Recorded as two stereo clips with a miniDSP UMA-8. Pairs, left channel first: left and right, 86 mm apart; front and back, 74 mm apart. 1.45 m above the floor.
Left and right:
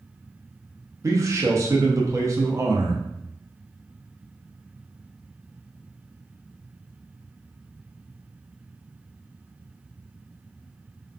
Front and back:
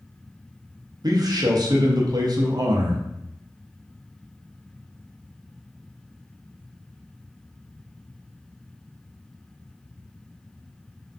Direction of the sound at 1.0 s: 145° right.